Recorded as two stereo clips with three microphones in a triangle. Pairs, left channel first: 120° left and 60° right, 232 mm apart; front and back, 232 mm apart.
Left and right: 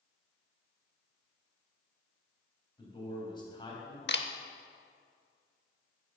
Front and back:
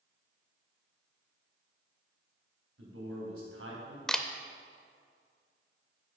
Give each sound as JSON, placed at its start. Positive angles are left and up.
{"t": 2.8, "sound": "a man speaking", "azimuth_deg": -170, "distance_m": 3.5}
{"t": 4.1, "sound": "a camera shutter", "azimuth_deg": 90, "distance_m": 0.6}